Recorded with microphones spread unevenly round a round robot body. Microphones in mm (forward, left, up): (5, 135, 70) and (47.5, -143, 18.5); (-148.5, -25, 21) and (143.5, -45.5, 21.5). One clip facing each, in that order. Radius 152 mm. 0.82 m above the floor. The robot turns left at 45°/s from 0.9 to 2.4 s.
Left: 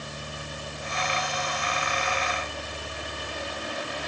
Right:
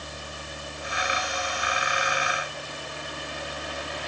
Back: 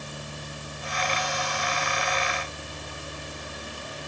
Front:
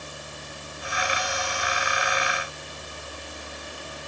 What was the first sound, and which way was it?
Only background noise.